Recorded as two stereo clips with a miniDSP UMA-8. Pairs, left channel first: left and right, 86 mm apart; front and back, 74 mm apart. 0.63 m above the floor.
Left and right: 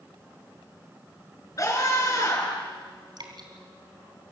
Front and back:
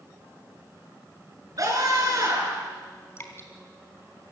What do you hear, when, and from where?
1.6 s a scream: 140° left, 7 m
3.2 s dripping: 55° right, 3 m